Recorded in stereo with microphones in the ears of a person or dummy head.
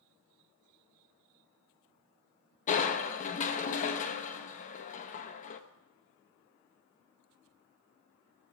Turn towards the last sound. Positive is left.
turn(degrees=40)  # may be behind; listen again after turning